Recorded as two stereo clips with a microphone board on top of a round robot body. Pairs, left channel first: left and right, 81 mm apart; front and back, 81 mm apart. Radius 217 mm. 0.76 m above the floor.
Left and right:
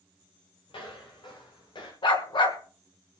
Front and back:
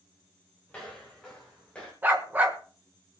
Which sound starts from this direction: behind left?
A dog barking, at 2.0 s.